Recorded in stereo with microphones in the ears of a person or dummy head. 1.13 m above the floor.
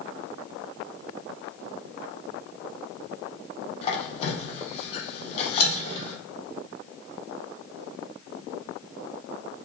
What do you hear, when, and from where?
3.8 s a squeak: 35° left (ahead or behind), 0.7 m